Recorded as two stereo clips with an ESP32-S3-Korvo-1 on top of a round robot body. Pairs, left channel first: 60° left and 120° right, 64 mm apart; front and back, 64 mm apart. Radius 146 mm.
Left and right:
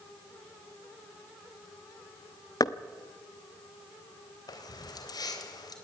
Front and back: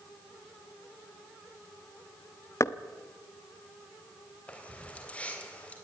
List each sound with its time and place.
2.6 s knocking: 40° left, 0.9 m
4.5 s keys jangling: 70° left, 3 m